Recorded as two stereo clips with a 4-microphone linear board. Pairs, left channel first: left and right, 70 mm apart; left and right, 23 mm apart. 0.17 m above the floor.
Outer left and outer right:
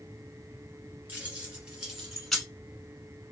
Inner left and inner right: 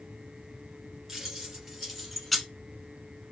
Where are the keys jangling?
25° right (ahead or behind), 1.7 m; by 2.5 s centre (ahead or behind), 1.2 m.